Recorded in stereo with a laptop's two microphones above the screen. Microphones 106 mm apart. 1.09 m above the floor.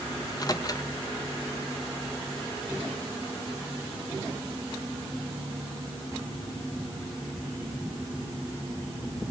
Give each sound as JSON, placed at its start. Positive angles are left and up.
{"t": 0.2, "sound": "a microwave", "side_deg": 35, "distance_m": 1.0}